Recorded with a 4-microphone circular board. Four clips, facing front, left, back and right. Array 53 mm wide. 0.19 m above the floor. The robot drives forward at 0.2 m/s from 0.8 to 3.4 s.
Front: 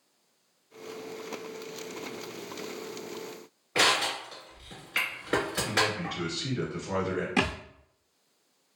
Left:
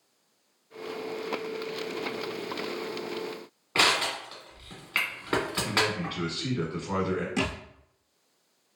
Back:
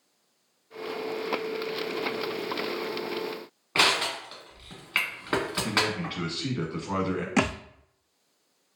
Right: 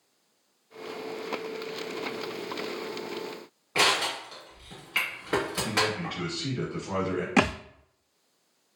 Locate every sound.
3.8 s crushing: 155° left, 1.5 m
5.6 s a man speaking: 170° left, 1.3 m
7.4 s a thud: 115° right, 0.5 m